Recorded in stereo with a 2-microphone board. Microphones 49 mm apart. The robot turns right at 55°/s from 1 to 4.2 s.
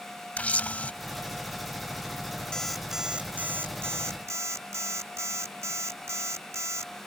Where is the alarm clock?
170° left; by 6.9 s 100° right.